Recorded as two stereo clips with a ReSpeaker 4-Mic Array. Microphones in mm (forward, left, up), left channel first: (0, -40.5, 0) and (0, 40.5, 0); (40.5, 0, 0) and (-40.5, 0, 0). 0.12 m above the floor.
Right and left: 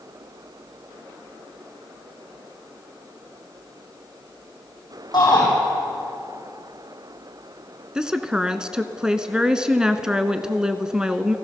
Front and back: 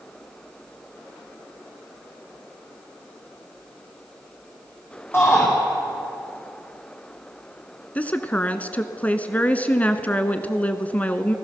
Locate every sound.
5.1 s a shout: 60° right, 6 m
8.0 s a woman speaking: 25° left, 1.2 m